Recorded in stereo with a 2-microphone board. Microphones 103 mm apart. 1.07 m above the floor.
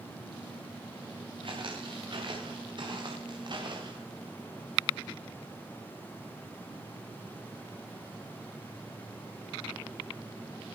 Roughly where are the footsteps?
Right.